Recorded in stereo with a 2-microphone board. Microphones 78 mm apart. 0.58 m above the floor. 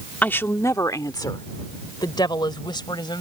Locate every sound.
0.2 s a woman speaking: 20° left (ahead or behind); by 3.2 s 75° left (ahead or behind)